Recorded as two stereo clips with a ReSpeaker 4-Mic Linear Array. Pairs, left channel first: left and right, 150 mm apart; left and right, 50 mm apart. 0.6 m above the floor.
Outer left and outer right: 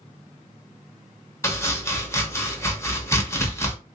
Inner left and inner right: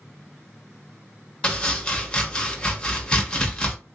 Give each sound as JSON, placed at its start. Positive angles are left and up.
{"t": 1.4, "sound": "chopping", "side_deg": 20, "distance_m": 1.0}